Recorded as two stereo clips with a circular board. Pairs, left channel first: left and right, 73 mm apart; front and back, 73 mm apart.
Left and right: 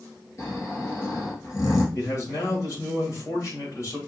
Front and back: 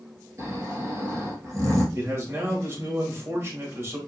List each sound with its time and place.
0.4 s snoring: 130° left, 1.6 m
1.9 s a man speaking: 130° left, 1.9 m